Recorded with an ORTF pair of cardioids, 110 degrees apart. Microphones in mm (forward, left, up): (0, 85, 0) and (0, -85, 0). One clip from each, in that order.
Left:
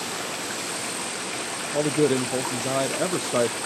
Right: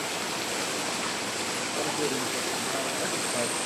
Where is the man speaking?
60° left, 0.9 m.